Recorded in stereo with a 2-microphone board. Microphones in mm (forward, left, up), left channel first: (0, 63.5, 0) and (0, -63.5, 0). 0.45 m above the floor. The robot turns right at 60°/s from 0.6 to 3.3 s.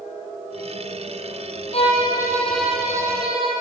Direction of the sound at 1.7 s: 130° left.